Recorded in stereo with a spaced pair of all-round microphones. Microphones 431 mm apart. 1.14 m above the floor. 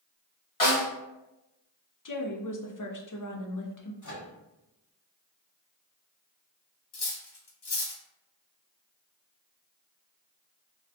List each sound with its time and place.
0.6 s a snare drum: 45° left (ahead or behind), 0.9 m
2.0 s a woman speaking: 45° left (ahead or behind), 0.5 m
4.0 s a microwave: 40° left (ahead or behind), 0.9 m
6.9 s cutlery clinking: 60° left (ahead or behind), 0.7 m